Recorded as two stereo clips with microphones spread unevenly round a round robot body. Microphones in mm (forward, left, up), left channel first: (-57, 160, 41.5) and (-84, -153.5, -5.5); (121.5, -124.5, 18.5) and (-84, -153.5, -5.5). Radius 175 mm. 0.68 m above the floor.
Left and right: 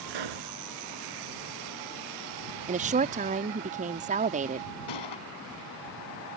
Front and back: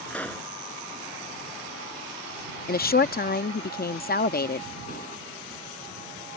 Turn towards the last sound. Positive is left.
turn(degrees=75)